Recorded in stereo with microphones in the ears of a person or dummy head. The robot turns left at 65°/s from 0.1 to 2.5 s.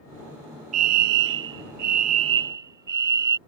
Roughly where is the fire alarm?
Ahead right.